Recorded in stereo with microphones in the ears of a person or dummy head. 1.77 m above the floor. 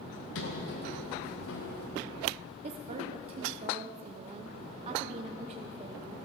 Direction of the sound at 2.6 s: 40° right (ahead or behind).